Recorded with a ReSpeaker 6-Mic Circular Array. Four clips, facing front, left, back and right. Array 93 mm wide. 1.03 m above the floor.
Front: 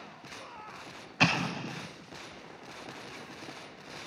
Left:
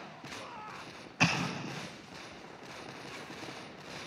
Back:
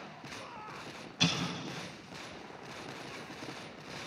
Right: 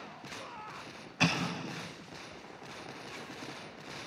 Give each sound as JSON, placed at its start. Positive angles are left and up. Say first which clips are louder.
{"t": 1.2, "sound": "an explosion", "louder": "even, front 5 dB", "azimuth_deg": 10, "distance_m": 1.1}